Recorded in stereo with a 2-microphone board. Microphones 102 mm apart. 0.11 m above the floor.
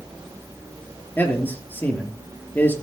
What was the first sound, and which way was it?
A man speaking, 20° left (ahead or behind).